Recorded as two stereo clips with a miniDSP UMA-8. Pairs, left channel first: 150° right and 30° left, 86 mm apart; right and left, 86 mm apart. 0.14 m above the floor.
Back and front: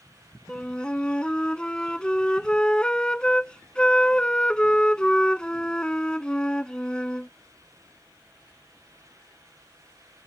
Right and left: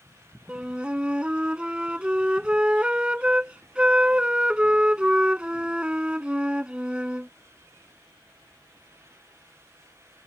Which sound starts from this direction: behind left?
A flute, at 0.5 s.